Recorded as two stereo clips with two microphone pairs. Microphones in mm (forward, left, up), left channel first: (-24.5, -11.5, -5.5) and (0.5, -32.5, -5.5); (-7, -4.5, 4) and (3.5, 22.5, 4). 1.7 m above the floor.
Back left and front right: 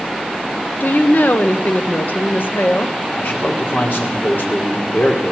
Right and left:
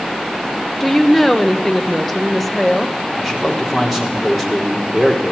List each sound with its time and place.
0.8 s a woman speaking: 160° left, 1.4 m
3.2 s a man speaking: 150° left, 4.5 m